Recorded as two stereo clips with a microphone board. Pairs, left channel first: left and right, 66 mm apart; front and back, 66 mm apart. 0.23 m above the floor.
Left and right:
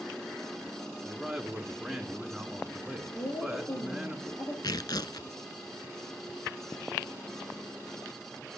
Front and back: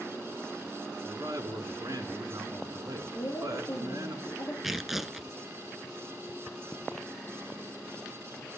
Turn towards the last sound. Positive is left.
turn(degrees=95)